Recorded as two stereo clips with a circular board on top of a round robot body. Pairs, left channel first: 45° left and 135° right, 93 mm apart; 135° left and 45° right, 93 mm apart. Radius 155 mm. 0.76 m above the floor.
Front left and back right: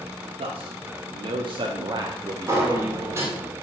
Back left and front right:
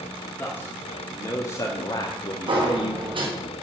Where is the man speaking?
155° right, 1.7 m; by 3.5 s 140° left, 1.1 m.